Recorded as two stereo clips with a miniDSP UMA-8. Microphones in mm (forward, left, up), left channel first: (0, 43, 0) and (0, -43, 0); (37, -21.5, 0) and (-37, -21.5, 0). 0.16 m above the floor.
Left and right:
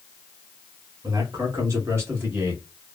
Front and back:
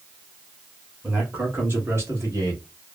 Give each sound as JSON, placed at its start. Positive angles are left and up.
{"t": 1.0, "sound": "a man speaking", "azimuth_deg": -115, "distance_m": 1.6}